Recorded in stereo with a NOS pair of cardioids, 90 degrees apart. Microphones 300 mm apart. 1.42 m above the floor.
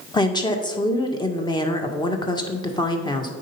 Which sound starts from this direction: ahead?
A woman speaking, at 0.1 s.